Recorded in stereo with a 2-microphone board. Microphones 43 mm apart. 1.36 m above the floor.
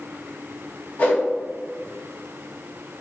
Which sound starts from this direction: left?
A whoosh, at 1.0 s.